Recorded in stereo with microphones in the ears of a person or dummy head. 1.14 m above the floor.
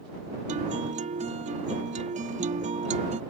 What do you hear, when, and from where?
0.5 s a guitar: 30° right (ahead or behind)